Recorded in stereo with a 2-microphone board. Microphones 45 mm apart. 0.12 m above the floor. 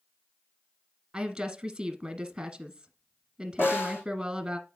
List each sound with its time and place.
1.1 s a woman speaking: 10° right (ahead or behind), 1.3 m
3.6 s a snare drum: 60° left (ahead or behind), 5 m